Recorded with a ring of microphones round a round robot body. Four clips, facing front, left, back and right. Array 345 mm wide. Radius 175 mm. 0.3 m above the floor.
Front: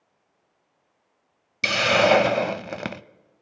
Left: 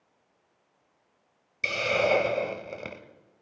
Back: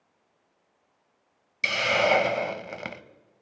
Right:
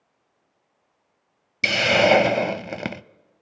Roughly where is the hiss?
Ahead right.